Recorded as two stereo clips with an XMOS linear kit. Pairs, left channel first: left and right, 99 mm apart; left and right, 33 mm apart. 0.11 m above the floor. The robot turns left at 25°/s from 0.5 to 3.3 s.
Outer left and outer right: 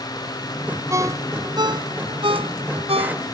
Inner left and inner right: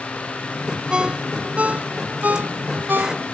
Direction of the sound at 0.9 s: 30° right (ahead or behind).